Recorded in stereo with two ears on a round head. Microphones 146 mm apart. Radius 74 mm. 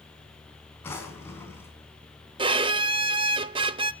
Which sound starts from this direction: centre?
A drawer, at 0.8 s.